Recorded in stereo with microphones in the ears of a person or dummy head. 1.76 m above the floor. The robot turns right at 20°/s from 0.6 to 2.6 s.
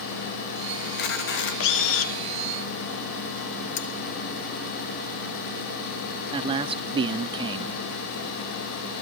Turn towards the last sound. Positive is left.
turn(degrees=-30)  # may be behind; listen again after turning